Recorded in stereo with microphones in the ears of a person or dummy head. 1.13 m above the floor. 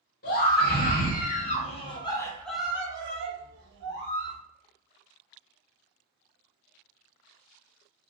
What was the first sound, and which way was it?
A scream, 55° left (ahead or behind).